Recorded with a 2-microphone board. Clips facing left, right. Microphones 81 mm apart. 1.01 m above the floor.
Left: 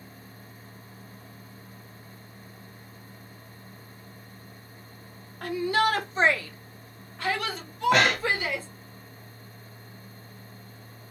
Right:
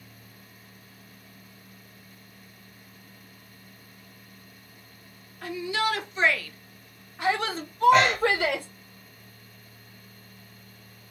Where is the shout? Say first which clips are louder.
Left 4 dB; 55° left (ahead or behind), 1.0 m; by 8.7 s 60° right (ahead or behind), 1.1 m.